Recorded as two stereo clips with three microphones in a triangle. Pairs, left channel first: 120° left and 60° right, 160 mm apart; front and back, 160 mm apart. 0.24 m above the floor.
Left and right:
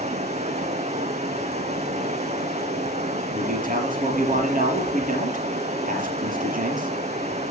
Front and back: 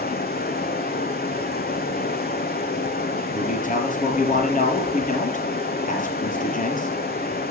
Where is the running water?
15° right, 1.8 m.